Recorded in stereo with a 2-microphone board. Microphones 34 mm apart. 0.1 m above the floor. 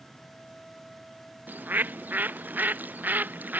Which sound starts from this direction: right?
A bird, at 1.5 s.